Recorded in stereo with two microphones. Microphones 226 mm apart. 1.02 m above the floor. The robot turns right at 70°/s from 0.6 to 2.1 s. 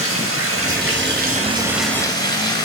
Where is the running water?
85° right, 4.5 m; by 2.6 s 20° left, 4.5 m.